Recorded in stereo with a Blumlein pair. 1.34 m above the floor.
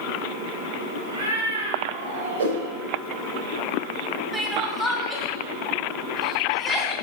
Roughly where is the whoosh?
Ahead right.